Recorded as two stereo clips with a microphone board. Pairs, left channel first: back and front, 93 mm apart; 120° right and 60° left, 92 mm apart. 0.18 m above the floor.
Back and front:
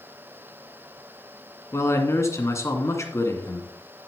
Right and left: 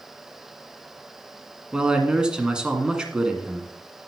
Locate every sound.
1.7 s a man speaking: 135° left, 2 m